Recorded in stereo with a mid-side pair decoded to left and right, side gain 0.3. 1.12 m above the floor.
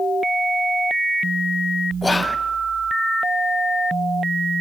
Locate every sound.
2.0 s whispering: 30° left, 0.6 m